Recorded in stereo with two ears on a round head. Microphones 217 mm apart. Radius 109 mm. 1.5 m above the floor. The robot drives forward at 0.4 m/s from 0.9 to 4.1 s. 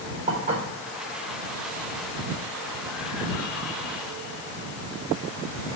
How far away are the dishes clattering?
About 3.5 m.